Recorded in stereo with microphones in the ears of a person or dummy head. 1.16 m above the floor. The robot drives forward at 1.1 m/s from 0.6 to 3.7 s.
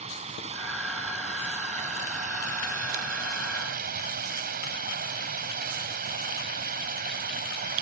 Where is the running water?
30° right (ahead or behind); by 7.8 s 45° right (ahead or behind).